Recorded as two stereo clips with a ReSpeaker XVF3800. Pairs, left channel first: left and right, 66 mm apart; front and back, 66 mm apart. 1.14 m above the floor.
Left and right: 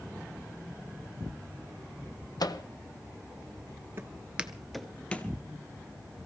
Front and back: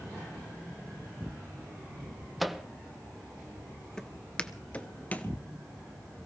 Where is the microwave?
90° left, 1.0 m.